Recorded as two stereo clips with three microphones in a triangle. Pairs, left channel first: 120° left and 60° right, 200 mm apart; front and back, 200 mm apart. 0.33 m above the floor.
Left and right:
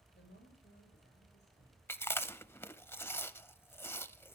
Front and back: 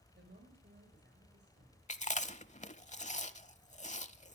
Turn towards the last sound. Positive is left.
turn(degrees=45)